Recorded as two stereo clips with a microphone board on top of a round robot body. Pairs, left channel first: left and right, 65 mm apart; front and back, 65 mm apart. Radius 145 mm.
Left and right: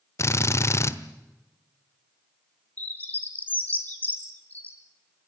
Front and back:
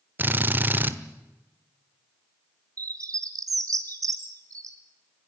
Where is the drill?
125° left, 1.4 m.